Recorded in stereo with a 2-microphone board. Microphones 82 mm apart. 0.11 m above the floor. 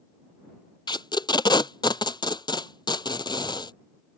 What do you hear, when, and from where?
0.9 s tape being pulled: 65° left (ahead or behind)